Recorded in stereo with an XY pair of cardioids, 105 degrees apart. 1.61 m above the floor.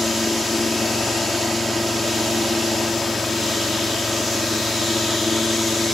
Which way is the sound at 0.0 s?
15° left.